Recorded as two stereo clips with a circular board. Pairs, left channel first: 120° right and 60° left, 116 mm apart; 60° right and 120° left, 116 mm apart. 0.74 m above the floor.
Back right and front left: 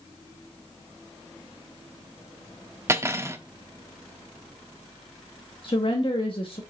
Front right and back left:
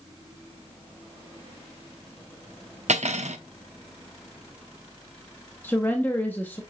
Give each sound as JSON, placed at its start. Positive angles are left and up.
{"t": 2.9, "sound": "cutlery clinking", "azimuth_deg": 125, "distance_m": 0.8}
{"t": 5.6, "sound": "a woman speaking", "azimuth_deg": -125, "distance_m": 0.9}